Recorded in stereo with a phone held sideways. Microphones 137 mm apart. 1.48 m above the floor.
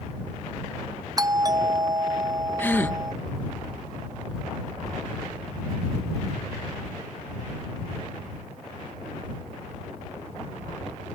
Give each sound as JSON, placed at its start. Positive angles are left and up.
{"t": 1.2, "sound": "a doorbell", "side_deg": -30}
{"t": 2.6, "sound": "a gasp", "side_deg": 15}